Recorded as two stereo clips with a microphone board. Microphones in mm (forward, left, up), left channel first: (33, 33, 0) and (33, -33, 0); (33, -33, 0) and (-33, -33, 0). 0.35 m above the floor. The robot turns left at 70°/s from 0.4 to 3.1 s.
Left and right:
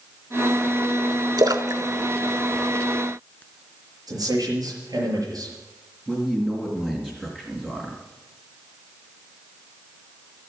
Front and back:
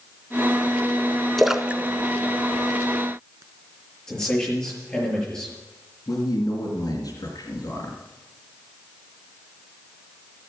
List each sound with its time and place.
1.4 s a splash: 85° right, 0.7 m; by 3.4 s 155° left, 0.7 m
4.1 s a man speaking: 80° right, 6 m
6.1 s a man speaking: 15° right, 3 m